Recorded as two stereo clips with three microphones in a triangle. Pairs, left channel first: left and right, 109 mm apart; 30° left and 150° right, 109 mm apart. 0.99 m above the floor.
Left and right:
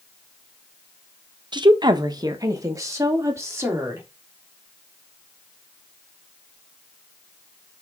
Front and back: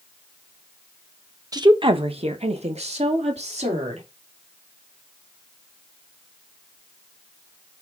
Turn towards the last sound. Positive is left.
turn(degrees=-155)